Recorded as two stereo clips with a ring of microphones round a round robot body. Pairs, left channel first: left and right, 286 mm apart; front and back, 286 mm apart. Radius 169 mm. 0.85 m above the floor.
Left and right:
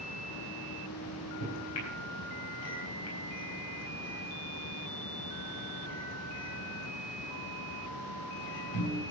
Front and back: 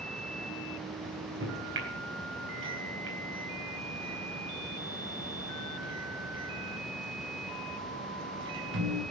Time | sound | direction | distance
1.0 | a microwave | 135° left | 4 m